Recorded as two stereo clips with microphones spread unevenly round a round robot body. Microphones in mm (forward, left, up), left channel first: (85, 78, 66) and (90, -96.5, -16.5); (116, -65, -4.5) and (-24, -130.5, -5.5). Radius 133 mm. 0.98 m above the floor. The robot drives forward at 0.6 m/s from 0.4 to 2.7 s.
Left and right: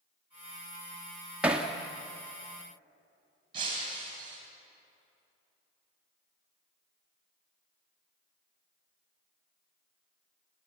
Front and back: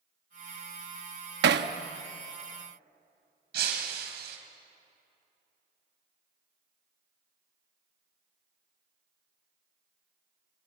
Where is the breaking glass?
160° right, 3 m.